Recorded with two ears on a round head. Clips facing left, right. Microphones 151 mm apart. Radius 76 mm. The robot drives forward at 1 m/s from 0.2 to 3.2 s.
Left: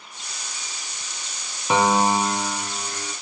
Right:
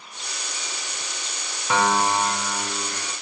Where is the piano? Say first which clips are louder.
Left 2 dB; 15° left (ahead or behind), 0.6 m; by 3.1 s 5° left (ahead or behind), 2 m.